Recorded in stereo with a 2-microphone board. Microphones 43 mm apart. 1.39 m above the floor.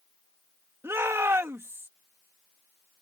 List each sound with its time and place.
0.8 s a shout: 75° right (ahead or behind)